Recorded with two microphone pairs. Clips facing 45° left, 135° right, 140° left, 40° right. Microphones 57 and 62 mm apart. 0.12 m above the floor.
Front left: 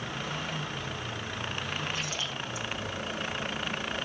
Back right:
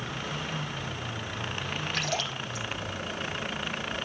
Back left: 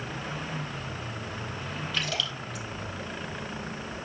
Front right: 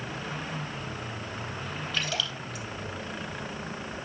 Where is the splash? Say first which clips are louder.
Back right 3 dB, even; 135° right, 4.5 m.